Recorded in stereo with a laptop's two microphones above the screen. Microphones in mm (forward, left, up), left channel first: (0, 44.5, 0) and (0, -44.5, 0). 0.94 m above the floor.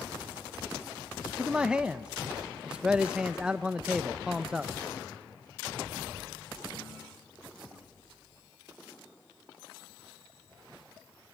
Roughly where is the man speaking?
Centre.